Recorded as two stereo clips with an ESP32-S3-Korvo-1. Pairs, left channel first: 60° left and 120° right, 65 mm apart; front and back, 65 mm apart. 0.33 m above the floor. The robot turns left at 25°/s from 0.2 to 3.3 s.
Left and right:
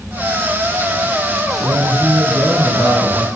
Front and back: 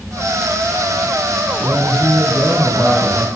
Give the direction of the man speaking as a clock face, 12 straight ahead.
4 o'clock.